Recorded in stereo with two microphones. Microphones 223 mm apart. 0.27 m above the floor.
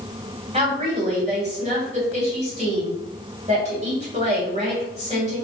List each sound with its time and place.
0.5 s a woman speaking: 30° right (ahead or behind), 1.8 m